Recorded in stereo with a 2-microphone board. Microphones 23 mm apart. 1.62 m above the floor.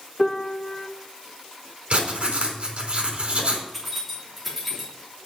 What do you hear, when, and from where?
0.2 s a piano: 20° left (ahead or behind), 0.9 m
1.9 s writing: 60° right (ahead or behind), 4 m
3.7 s keys jangling: 5° right (ahead or behind), 3 m